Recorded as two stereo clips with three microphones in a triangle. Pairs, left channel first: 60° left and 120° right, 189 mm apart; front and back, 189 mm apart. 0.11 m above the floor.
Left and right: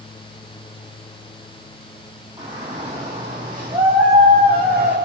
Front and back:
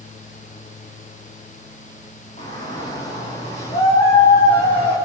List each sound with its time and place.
2.4 s a shout: 50° right, 5 m; by 5.0 s 60° right, 4 m